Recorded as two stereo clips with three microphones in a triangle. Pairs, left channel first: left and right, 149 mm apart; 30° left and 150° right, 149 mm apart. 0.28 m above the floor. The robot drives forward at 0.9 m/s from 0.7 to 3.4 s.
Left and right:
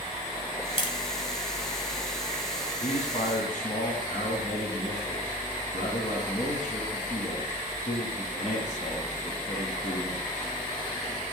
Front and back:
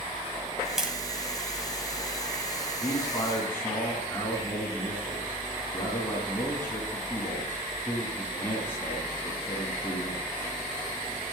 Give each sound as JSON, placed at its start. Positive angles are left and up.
{"t": 0.8, "sound": "tapping", "azimuth_deg": 125, "distance_m": 1.5}
{"t": 2.8, "sound": "a man speaking", "azimuth_deg": 85, "distance_m": 2.0}